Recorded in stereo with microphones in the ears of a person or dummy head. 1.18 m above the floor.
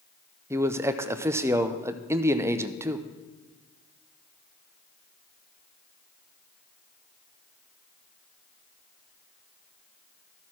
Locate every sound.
0.5 s a man speaking: 15° right (ahead or behind), 0.6 m